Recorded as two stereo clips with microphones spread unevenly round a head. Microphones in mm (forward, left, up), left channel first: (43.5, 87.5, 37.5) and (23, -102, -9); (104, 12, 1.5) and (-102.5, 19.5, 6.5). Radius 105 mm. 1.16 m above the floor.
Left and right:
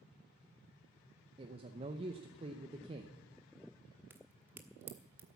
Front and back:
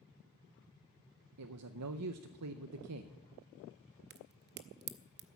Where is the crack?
175° left, 0.7 m.